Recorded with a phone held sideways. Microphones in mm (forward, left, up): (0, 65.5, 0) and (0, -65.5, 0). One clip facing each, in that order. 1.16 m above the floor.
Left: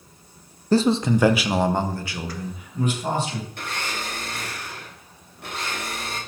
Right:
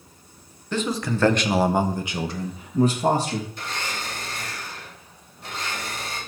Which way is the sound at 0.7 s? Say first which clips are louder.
Left 7 dB; 40° left (ahead or behind).